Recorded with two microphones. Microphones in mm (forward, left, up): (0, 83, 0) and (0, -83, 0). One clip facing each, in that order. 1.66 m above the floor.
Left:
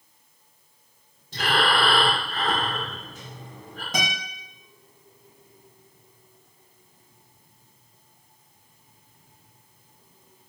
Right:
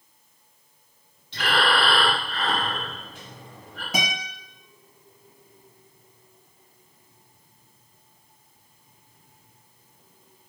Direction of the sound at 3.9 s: 10° right (ahead or behind).